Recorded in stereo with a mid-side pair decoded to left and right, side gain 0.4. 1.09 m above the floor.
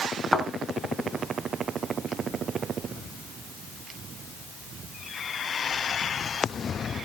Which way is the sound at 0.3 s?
10° left.